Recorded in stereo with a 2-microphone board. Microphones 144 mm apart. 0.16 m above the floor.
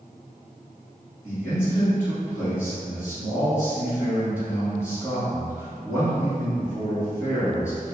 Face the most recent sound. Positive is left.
turn(degrees=20)  # may be behind; listen again after turning